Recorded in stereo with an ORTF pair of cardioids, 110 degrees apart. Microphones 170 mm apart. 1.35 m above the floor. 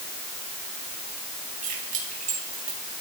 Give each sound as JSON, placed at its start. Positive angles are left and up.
{"t": 1.6, "sound": "keys jangling", "azimuth_deg": -50, "distance_m": 7.5}